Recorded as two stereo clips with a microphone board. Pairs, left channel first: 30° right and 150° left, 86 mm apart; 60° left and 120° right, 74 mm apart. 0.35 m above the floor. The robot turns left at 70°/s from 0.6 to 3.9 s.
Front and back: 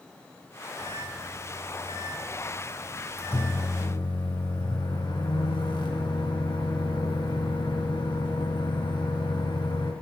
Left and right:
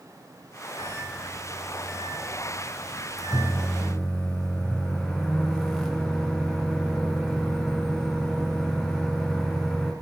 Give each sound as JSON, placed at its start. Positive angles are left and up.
{"t": 0.8, "sound": "a microwave", "azimuth_deg": -175, "distance_m": 3.0}